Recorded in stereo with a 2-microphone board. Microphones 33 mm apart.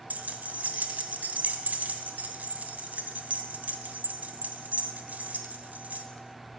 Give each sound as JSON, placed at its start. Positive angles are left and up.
{"t": 0.1, "sound": "keys jangling", "side_deg": -55, "distance_m": 1.1}